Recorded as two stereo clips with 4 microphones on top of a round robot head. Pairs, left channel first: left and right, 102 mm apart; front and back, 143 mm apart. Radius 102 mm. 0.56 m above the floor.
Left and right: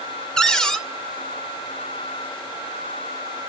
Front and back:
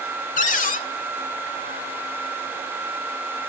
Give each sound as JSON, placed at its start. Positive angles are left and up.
{"t": 0.4, "sound": "a cupboard door", "azimuth_deg": 5, "distance_m": 1.9}